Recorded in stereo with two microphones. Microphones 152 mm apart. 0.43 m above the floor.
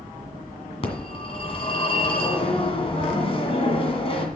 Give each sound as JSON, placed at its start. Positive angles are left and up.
{"t": 0.8, "sound": "a phone ringing", "side_deg": 40, "distance_m": 1.9}